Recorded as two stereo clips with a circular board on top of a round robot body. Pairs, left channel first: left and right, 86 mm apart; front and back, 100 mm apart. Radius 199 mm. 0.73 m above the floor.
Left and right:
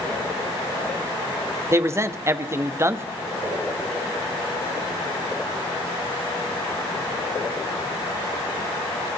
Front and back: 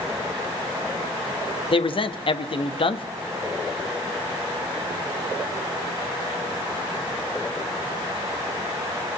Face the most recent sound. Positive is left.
turn(degrees=-30)